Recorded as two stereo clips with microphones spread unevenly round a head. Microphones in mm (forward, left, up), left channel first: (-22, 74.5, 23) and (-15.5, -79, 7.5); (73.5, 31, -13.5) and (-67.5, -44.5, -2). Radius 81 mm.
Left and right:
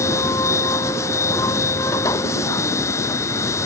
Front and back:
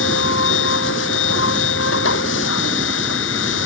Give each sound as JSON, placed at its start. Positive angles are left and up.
{"t": 0.0, "sound": "a machine running", "azimuth_deg": 20}